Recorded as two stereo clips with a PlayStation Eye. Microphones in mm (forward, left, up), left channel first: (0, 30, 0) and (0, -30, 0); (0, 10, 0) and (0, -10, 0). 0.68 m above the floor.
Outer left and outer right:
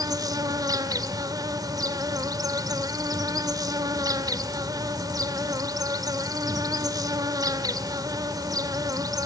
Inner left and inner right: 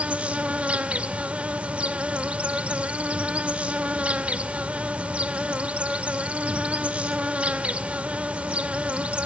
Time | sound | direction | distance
0.0 | an insect | 75° right (ahead or behind) | 1.6 m